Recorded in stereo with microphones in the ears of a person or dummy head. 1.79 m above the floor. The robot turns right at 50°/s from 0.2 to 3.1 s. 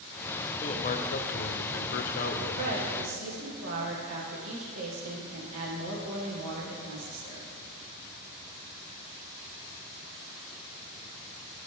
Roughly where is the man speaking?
Ahead left.